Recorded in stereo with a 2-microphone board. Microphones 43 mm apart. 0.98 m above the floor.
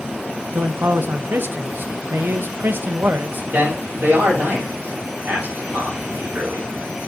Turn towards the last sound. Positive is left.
turn(degrees=-50)  # may be behind; listen again after turning